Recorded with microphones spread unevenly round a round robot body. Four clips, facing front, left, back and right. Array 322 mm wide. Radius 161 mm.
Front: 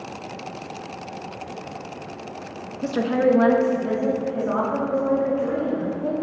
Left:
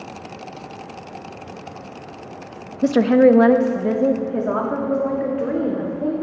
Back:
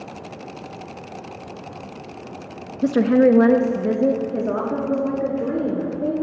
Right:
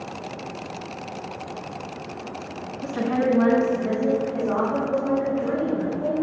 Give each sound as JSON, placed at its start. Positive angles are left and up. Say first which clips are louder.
{"t": 2.8, "sound": "a woman speaking", "louder": "left 10 dB, back 5 dB", "azimuth_deg": 120, "distance_m": 0.5}